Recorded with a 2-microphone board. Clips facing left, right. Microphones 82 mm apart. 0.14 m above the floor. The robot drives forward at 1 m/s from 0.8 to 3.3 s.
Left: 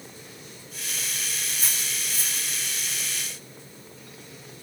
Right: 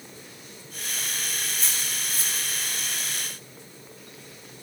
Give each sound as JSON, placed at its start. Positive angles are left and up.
{"t": 1.5, "sound": "cutlery clinking", "side_deg": 0, "distance_m": 5.0}